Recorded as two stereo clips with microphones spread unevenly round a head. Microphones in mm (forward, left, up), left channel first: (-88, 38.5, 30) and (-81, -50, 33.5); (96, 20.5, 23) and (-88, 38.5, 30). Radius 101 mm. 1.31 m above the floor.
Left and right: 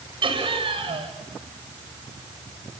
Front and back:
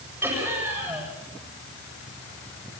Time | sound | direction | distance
0.2 | laughter | 105° right | 7.5 m